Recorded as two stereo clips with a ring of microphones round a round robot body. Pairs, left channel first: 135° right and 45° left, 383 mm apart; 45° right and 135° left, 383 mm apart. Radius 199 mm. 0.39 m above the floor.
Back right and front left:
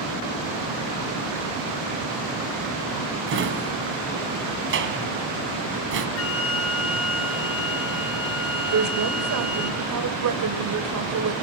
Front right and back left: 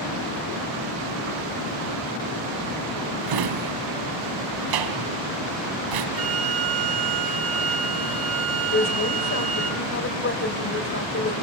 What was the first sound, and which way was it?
A drawer, 105° left.